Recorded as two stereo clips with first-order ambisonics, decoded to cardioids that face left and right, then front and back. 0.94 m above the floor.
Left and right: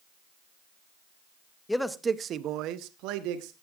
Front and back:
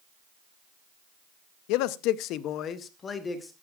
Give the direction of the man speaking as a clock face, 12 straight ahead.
12 o'clock.